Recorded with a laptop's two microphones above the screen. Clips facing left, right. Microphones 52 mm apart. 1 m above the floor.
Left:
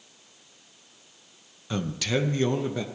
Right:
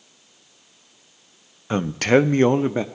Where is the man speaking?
35° right (ahead or behind), 0.5 m.